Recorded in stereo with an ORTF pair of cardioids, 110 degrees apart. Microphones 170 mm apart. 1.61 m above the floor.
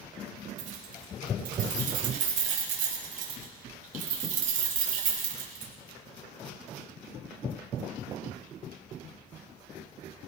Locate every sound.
0.6 s keys jangling: 55° right, 6.5 m